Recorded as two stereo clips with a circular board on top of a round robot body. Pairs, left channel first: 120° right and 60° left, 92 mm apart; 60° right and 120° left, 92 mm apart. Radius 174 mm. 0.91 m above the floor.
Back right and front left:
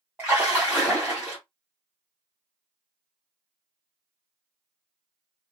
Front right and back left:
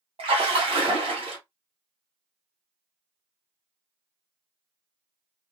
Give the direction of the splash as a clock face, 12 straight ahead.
8 o'clock.